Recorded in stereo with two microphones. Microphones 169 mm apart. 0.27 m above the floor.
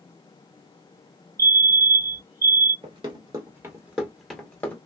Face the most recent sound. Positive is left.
turn(degrees=10)  # may be behind; listen again after turning